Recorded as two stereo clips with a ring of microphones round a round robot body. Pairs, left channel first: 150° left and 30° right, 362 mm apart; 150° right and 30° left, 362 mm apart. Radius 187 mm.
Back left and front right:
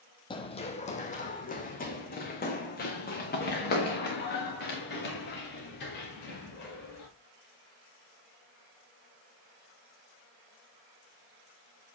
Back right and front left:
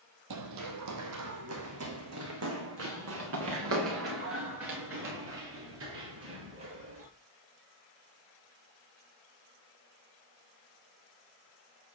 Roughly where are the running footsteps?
Left.